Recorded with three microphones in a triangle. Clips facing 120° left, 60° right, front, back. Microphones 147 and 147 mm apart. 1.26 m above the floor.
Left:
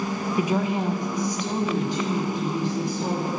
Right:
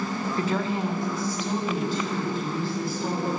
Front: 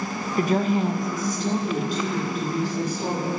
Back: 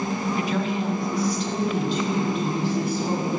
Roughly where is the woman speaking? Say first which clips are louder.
Left 3 dB, front 9 dB; ahead left.